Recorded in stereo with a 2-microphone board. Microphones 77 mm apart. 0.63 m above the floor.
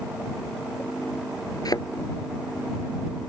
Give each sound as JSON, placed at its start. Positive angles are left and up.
{"t": 1.6, "sound": "a thud", "side_deg": 55}